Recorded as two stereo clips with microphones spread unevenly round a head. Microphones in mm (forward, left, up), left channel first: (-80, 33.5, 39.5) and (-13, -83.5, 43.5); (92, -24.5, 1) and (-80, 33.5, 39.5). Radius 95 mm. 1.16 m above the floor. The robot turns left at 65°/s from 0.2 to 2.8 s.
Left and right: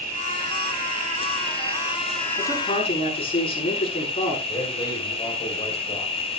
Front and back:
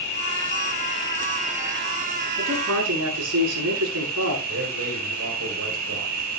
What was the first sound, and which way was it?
An insect, 30° right.